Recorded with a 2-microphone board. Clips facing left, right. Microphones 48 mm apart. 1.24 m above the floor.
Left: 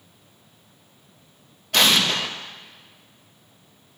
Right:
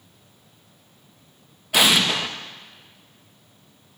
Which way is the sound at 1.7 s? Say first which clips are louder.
Right 1 dB; 10° right (ahead or behind).